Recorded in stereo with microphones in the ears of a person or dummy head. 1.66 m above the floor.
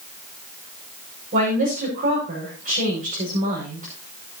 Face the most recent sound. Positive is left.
turn(degrees=-45)  # may be behind; listen again after turning